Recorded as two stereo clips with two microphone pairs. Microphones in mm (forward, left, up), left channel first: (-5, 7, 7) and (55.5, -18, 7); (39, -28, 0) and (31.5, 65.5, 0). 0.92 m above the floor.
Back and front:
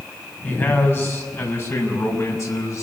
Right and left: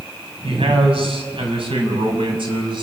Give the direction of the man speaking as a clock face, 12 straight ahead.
9 o'clock.